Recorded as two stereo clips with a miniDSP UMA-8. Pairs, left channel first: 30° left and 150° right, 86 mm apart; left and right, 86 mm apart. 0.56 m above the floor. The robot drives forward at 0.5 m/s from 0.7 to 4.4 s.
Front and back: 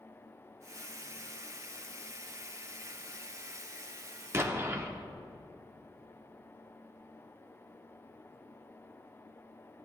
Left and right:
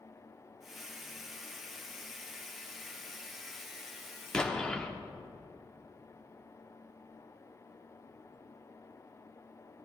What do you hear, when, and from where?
4.3 s an explosion: 165° left, 0.8 m